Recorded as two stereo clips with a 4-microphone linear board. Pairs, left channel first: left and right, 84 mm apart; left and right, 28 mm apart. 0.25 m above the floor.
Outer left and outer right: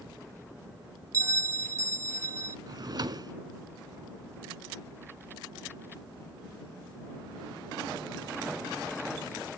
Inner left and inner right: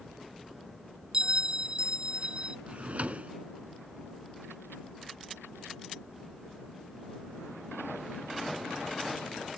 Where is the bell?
40° right (ahead or behind).